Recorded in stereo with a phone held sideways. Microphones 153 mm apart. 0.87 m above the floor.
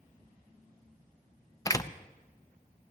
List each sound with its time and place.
1.6 s a door slam: 20° left (ahead or behind), 0.5 m